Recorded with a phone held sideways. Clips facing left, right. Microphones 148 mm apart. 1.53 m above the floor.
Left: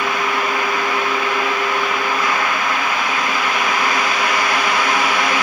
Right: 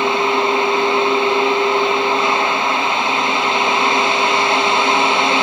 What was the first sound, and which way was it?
A fan, 25° right (ahead or behind).